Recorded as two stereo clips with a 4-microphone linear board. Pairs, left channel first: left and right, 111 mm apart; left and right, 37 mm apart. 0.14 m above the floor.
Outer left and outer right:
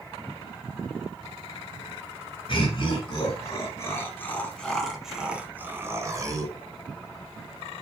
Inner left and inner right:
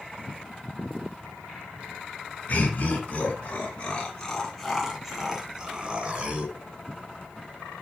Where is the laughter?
45° left (ahead or behind), 2.5 m; by 6.5 s 35° right (ahead or behind), 1.9 m.